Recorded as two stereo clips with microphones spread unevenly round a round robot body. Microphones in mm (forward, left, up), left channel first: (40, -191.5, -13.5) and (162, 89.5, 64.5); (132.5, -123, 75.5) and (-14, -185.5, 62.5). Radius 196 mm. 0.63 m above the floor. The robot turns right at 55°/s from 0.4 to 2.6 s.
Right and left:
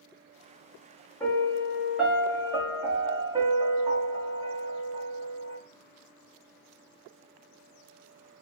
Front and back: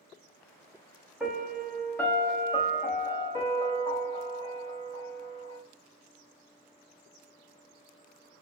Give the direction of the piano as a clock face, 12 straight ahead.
3 o'clock.